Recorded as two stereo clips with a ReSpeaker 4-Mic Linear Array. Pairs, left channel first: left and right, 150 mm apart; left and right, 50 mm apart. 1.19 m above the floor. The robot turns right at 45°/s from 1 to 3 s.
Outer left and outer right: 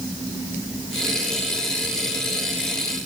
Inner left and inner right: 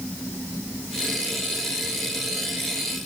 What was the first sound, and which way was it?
Only background noise.